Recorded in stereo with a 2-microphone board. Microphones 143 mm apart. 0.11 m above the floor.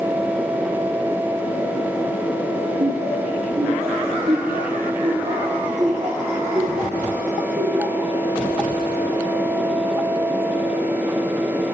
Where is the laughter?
50° right (ahead or behind), 6 m; by 8.1 s 20° right (ahead or behind), 5 m.